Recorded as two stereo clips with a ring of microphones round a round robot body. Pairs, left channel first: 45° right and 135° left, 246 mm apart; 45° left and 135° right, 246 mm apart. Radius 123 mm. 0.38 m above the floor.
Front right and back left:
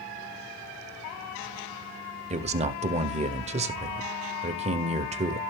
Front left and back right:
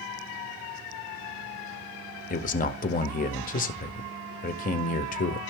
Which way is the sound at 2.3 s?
85° left.